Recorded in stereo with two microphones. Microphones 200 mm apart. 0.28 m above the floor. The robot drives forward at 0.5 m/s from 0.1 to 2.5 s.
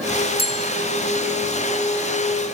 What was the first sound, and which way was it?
A bell, 30° left (ahead or behind).